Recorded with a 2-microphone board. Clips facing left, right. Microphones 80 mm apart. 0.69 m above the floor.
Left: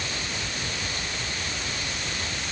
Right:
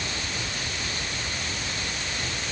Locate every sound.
Only background noise.